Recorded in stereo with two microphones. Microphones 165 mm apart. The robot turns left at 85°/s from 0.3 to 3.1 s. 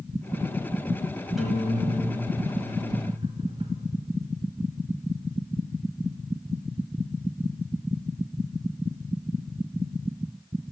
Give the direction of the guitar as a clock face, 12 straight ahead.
12 o'clock.